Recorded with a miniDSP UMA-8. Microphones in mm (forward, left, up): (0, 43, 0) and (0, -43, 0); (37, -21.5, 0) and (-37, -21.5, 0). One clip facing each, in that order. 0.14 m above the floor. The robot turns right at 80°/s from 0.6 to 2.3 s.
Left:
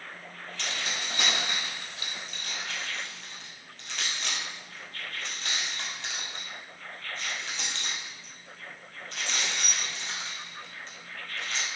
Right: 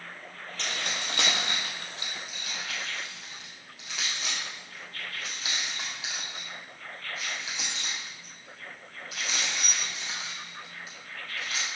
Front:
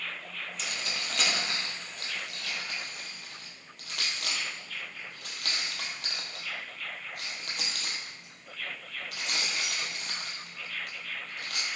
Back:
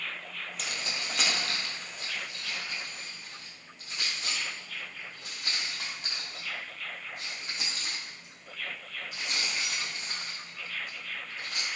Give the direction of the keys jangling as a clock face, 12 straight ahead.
5 o'clock.